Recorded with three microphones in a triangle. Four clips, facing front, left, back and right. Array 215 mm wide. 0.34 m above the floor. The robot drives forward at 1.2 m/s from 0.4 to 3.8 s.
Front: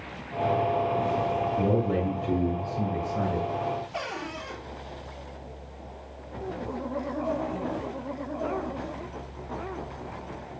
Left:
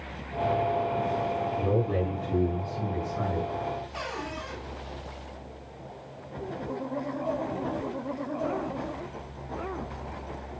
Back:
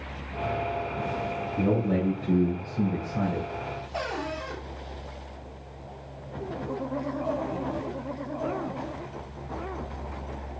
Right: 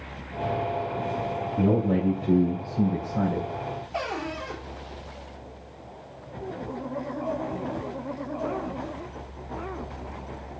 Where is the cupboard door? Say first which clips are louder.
Right 4 dB, back 3 dB; 105° right, 7 m.